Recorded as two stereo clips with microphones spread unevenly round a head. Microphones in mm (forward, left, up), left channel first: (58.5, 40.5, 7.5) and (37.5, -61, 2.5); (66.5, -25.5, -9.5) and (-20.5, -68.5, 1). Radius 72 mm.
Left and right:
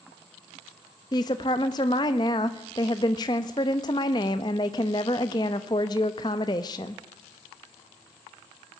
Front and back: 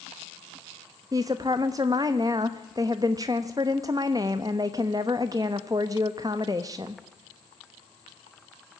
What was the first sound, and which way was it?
A woman speaking, 140° left.